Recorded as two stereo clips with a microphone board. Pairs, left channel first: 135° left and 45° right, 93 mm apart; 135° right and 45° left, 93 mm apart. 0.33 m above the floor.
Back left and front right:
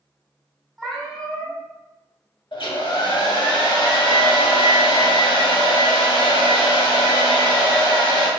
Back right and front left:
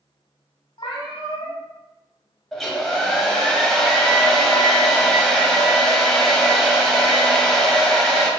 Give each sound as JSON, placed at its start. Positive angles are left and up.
{"t": 0.8, "sound": "a cat meowing", "azimuth_deg": -140, "distance_m": 1.0}
{"t": 2.5, "sound": "a hair dryer", "azimuth_deg": 140, "distance_m": 0.9}